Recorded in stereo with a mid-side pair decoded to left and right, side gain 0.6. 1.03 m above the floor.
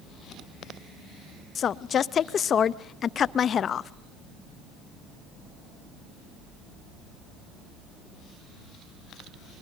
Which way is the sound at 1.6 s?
40° left.